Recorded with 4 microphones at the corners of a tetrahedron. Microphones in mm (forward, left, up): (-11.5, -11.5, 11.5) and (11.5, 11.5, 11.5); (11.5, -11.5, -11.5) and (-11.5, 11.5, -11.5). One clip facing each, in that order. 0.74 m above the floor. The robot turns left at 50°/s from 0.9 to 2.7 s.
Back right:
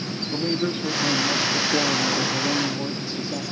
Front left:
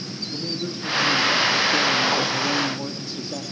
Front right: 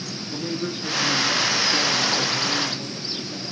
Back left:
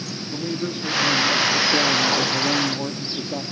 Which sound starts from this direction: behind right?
A man speaking, at 0.3 s.